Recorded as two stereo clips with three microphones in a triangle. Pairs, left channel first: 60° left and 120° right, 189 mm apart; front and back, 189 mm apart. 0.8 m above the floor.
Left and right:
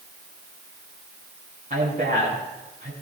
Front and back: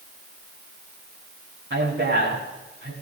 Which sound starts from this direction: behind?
A man speaking, at 1.7 s.